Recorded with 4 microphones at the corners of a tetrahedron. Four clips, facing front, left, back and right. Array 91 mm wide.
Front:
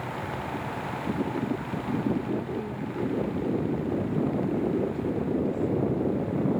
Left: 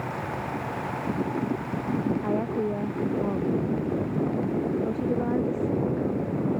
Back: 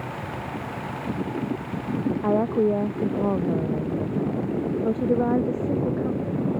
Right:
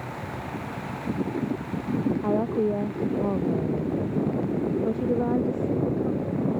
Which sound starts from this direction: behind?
A woman speaking, at 2.2 s.